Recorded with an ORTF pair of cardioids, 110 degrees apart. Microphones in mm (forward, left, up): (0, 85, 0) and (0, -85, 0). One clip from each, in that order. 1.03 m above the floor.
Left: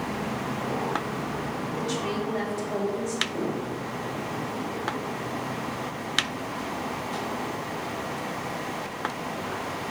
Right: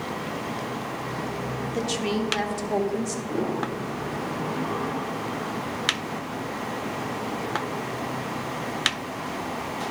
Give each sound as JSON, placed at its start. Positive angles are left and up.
{"t": 1.7, "sound": "a woman speaking", "azimuth_deg": -50, "distance_m": 1.1}
{"t": 3.3, "sound": "a piano", "azimuth_deg": -40, "distance_m": 2.5}